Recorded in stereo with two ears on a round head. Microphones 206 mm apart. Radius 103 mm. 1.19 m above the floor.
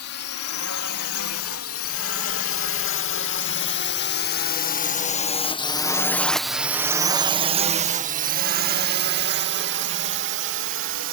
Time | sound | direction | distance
0.0 | a drone | 75° left (ahead or behind) | ?